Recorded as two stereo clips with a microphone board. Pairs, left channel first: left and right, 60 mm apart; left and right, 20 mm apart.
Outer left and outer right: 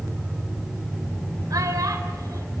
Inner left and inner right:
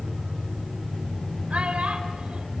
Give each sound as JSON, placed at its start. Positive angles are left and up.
{"t": 1.5, "sound": "a child speaking", "side_deg": -75, "distance_m": 3.0}